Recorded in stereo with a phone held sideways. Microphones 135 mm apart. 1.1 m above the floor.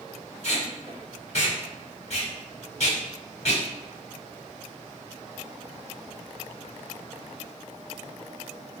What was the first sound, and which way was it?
Tape being pulled, 55° left (ahead or behind).